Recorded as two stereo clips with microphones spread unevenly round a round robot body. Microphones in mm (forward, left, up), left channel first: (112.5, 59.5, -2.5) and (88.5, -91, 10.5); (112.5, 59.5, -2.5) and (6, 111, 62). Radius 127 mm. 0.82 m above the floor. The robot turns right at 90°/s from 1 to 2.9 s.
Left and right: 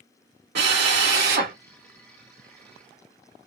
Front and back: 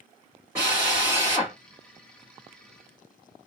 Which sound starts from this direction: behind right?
A drill, at 0.6 s.